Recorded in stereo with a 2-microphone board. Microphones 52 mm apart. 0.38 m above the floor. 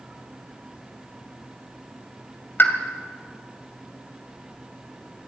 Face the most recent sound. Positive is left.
turn(degrees=45)  # may be behind; listen again after turning